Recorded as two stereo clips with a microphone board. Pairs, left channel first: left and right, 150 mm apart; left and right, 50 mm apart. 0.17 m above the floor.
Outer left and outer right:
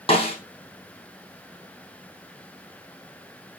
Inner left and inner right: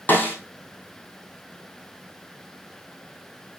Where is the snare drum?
35° left (ahead or behind), 3 m.